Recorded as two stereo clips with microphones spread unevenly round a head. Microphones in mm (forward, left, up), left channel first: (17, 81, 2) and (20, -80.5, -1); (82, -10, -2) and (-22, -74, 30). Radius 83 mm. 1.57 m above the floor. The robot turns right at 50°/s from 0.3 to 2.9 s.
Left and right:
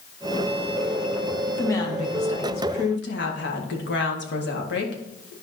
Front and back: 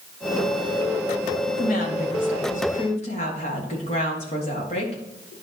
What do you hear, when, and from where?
1.5 s a woman speaking: 10° left, 1.8 m; by 5.3 s 80° left, 1.8 m